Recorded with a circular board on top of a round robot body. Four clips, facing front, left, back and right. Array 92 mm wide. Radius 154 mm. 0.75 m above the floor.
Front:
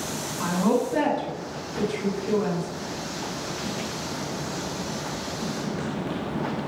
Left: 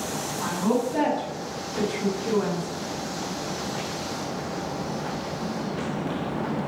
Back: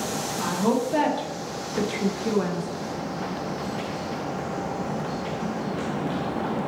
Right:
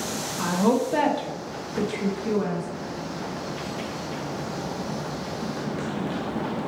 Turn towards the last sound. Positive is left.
turn(degrees=170)